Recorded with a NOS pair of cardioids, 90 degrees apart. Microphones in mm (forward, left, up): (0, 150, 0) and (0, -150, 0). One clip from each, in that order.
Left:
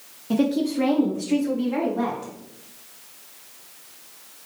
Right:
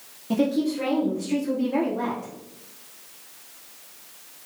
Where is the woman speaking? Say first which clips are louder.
Left 1 dB; straight ahead, 0.6 m; by 2.3 s 45° left, 1.8 m.